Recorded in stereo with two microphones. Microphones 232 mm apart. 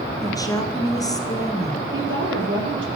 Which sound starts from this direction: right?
A woman speaking, at 1.9 s.